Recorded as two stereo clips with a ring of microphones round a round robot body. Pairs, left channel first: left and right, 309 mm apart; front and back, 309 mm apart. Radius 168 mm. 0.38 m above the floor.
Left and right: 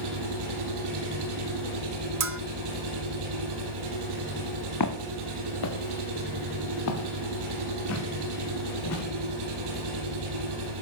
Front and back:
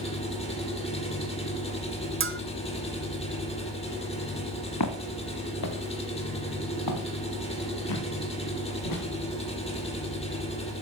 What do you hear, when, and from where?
0.0 s an engine running: 70° right, 5.5 m
2.2 s a bell: 130° right, 1.1 m
4.8 s footsteps: 45° left, 2.0 m; by 9.0 s 40° left, 5 m